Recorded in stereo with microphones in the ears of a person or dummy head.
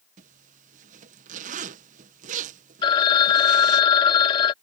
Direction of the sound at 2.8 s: 25° left (ahead or behind).